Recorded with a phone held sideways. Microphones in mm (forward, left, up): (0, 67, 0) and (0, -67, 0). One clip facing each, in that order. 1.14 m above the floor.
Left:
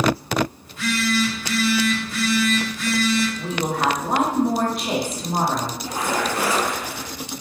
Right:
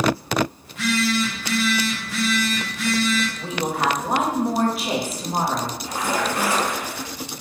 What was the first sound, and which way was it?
A phone buzzing, 75° right (ahead or behind).